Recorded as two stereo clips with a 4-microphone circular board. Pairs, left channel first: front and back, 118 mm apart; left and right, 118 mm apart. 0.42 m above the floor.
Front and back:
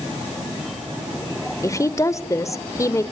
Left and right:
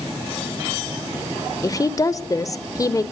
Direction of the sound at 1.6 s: 50° left.